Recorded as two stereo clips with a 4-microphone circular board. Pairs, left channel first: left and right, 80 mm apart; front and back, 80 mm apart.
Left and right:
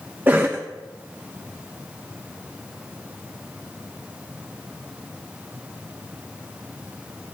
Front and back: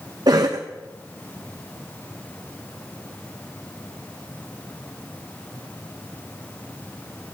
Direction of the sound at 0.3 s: 155° right.